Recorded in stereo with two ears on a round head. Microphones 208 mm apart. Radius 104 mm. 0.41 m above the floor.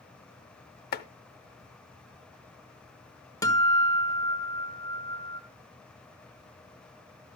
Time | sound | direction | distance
0.9 | chopping | 45° left (ahead or behind) | 0.6 m
3.4 | a guitar | 15° left (ahead or behind) | 1.2 m